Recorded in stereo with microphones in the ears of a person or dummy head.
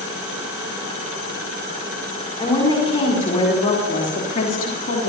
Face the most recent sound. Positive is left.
turn(degrees=50)  # may be behind; listen again after turning